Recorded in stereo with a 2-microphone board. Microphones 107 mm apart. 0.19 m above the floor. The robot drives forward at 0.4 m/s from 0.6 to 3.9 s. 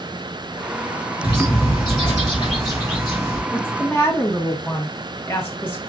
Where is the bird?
50° left (ahead or behind), 6 m; by 3.4 s 45° left (ahead or behind), 6.5 m.